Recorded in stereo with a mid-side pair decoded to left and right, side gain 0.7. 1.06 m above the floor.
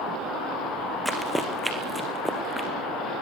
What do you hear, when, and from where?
1.1 s running footsteps: straight ahead, 4 m; by 2.7 s 15° right, 4.5 m